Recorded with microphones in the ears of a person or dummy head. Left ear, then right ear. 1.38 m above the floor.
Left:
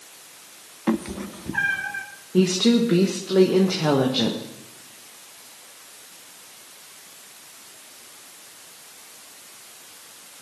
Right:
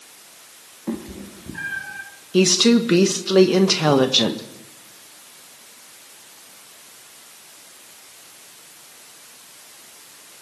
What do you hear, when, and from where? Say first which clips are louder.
0.9 s a cat meowing: left 5 dB; 50° left (ahead or behind), 1.1 m; by 2.0 s 30° left (ahead or behind), 1.9 m
2.3 s a woman speaking: right 4 dB; 80° right, 1.2 m